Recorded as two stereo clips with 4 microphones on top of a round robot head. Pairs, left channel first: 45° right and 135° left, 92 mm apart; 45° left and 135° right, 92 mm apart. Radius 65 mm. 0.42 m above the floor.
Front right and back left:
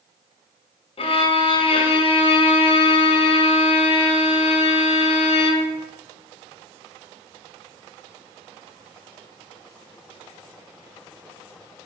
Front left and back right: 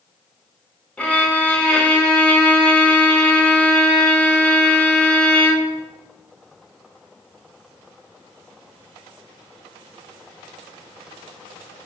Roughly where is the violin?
Ahead right.